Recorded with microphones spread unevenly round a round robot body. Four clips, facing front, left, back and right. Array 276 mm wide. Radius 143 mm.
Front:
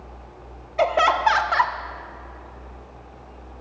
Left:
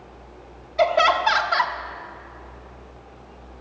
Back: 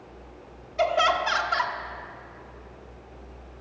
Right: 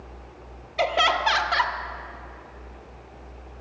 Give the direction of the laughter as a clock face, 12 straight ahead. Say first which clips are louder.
Left 4 dB, front 4 dB; 12 o'clock.